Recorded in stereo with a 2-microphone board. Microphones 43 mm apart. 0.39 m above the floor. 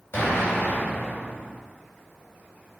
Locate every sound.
0.1 s an explosion: 60° left (ahead or behind), 2 m